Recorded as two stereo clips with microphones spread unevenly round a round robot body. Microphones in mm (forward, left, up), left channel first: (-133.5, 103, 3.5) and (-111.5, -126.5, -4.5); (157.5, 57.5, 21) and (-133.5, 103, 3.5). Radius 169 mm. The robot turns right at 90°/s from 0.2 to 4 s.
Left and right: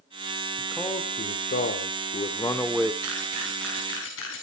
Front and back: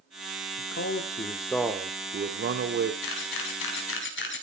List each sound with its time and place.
0.6 s a man speaking: 5° right, 1.3 m; by 2.9 s 155° right, 1.3 m
3.0 s a camera shutter: 45° right, 4.5 m; by 4.4 s 40° left, 4.5 m